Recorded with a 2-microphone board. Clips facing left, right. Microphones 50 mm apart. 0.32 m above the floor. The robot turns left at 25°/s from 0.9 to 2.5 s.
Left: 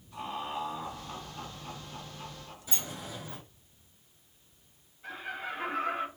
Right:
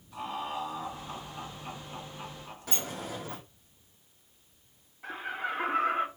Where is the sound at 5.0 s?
55° right (ahead or behind), 3 m.